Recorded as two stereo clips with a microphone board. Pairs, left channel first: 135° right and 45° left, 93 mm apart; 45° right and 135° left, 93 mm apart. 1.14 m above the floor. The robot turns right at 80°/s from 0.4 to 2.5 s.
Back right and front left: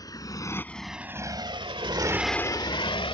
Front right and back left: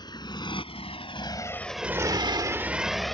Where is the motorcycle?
85° right; by 3.1 s 135° right.